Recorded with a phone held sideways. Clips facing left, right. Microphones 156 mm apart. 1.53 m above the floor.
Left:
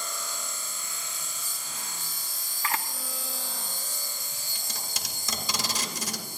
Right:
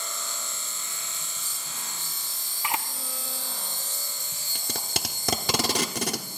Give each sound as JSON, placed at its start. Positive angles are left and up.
{"t": 0.0, "sound": "an insect", "side_deg": -25, "distance_m": 1.9}
{"t": 2.6, "sound": "a camera shutter", "side_deg": -20, "distance_m": 0.7}
{"t": 4.5, "sound": "tape being pulled", "side_deg": -65, "distance_m": 0.9}